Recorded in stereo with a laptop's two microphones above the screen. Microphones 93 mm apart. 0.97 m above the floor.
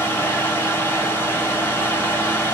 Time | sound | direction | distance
0.0 | a fan | 20° left (ahead or behind) | 1.0 m